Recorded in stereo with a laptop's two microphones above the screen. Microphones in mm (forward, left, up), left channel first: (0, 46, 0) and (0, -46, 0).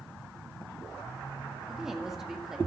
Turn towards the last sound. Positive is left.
turn(degrees=-5)  # may be behind; listen again after turning